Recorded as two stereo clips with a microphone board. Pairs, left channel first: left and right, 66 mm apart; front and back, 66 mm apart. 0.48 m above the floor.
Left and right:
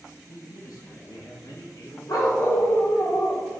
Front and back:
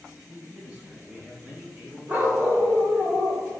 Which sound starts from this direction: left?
A man speaking, at 0.3 s.